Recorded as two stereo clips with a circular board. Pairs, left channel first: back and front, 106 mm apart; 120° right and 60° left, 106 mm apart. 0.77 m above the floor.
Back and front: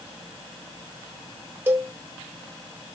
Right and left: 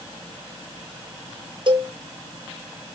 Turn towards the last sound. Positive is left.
turn(degrees=65)